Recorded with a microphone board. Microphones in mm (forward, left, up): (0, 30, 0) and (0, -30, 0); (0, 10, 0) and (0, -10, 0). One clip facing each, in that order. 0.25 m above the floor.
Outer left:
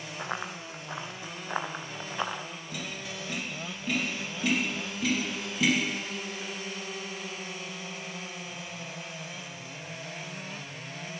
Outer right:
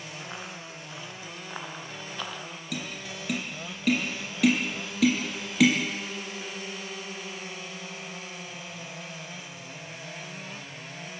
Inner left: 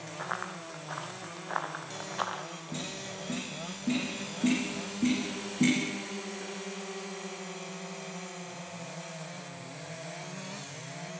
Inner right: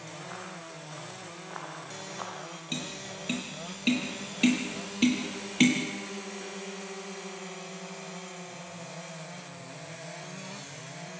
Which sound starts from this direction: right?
Tapping, at 2.7 s.